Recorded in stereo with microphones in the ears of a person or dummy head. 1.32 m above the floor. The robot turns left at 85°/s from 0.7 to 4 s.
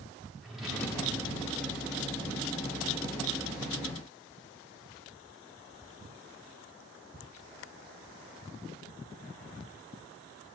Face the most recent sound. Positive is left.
turn(degrees=-95)